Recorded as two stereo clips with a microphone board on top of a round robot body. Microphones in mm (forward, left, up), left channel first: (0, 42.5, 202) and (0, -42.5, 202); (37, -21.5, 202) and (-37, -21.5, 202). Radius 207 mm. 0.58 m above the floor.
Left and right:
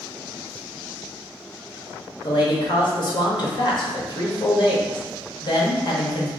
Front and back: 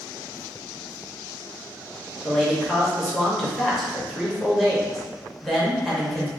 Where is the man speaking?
90° left, 1.3 m.